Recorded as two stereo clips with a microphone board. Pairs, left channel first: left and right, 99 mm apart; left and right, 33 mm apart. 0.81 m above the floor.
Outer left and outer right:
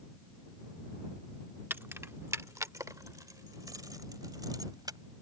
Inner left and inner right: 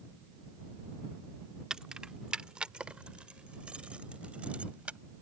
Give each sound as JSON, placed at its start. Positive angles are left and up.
{"t": 1.7, "sound": "keys jangling", "side_deg": -20}